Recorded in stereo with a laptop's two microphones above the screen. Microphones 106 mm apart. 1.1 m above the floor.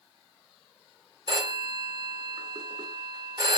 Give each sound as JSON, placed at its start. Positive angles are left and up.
{"t": 1.3, "sound": "a phone ringing", "side_deg": -45, "distance_m": 1.8}